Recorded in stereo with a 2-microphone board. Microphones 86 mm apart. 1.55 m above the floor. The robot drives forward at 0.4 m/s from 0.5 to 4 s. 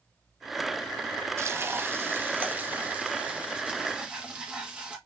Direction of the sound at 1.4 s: 30° right (ahead or behind).